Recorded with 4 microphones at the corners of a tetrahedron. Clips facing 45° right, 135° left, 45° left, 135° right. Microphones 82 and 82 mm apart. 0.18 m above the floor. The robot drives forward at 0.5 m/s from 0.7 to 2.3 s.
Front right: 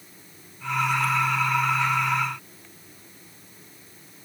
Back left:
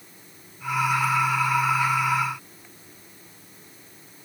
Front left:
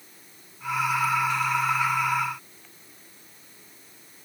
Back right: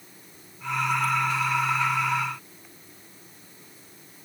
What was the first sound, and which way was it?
Only background noise.